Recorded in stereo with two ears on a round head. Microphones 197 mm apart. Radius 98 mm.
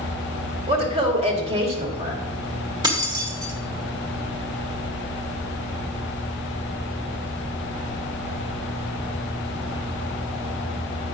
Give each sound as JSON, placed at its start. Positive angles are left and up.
{"t": 0.7, "sound": "a woman speaking", "side_deg": -25, "distance_m": 1.5}
{"t": 2.8, "sound": "keys jangling", "side_deg": -20, "distance_m": 1.3}